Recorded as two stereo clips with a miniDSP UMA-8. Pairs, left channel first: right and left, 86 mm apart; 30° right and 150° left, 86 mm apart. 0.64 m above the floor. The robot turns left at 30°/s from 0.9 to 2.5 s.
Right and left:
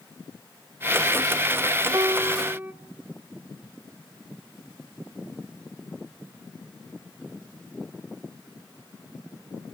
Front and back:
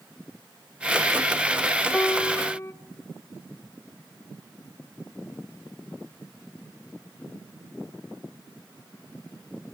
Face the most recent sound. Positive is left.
turn(degrees=25)